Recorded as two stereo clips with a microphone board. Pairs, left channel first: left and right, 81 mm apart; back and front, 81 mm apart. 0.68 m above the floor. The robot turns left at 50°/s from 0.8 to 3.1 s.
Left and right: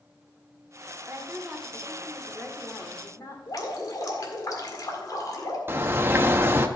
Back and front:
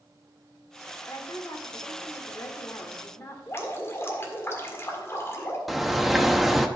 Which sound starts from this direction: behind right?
A woman speaking, at 1.1 s.